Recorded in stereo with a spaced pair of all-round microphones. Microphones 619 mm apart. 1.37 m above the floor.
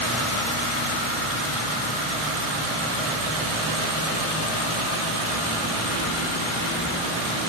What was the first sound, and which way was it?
Only background noise.